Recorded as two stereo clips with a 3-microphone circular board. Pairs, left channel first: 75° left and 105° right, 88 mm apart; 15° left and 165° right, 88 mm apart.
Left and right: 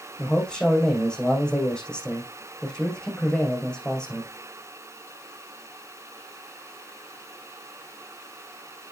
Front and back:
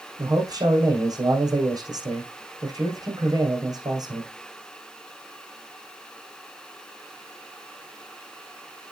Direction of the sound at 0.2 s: 155° left.